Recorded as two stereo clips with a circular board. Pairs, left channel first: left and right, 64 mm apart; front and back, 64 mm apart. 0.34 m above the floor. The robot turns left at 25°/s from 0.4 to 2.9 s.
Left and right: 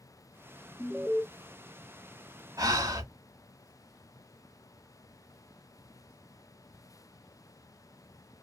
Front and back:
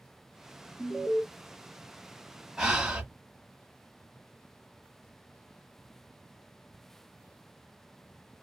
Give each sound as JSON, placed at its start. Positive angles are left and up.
{"t": 0.8, "sound": "an alarm", "azimuth_deg": -5, "distance_m": 0.5}
{"t": 2.6, "sound": "breathing", "azimuth_deg": -95, "distance_m": 0.9}